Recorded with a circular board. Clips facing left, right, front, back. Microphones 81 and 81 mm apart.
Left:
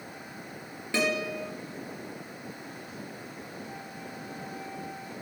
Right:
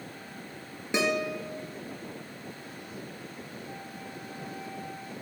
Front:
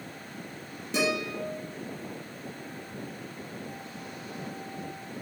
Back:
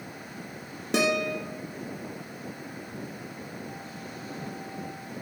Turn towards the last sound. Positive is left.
turn(degrees=-160)